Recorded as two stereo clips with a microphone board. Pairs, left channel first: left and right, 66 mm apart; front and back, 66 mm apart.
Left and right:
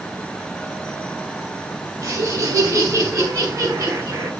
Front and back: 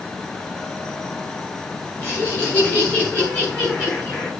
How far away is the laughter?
About 4.5 m.